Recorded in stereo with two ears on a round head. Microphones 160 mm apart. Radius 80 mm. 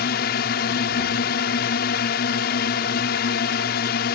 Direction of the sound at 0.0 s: 55° left (ahead or behind).